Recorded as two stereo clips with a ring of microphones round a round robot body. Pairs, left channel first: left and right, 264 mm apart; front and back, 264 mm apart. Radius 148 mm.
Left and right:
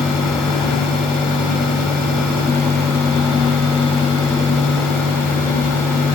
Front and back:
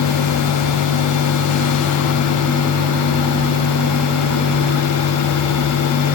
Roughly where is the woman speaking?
I don't hear a woman speaking.